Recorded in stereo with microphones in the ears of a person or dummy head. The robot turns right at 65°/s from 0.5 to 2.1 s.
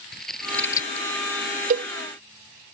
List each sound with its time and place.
0.1 s scissors: centre (ahead or behind); by 1.1 s 35° left (ahead or behind)
1.7 s a cowbell: 45° right (ahead or behind); by 1.9 s 35° right (ahead or behind)